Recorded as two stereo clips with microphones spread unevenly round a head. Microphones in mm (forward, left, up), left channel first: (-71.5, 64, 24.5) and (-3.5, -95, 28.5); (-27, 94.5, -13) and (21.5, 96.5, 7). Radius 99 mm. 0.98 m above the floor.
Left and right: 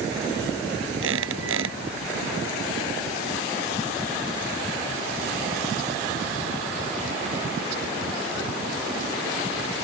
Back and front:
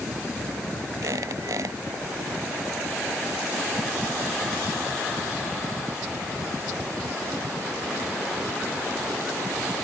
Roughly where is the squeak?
Ahead right.